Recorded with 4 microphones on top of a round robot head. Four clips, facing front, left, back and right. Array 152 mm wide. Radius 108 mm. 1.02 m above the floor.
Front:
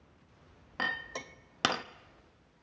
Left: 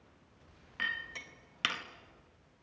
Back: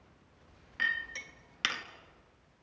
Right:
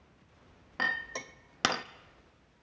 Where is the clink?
40° right, 0.5 m.